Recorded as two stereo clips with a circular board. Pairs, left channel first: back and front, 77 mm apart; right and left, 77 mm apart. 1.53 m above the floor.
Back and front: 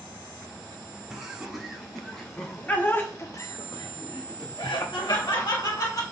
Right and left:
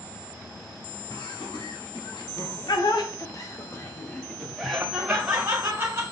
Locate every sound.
1.1 s laughter: 85° right, 2.5 m; by 6.0 s 155° left, 2.5 m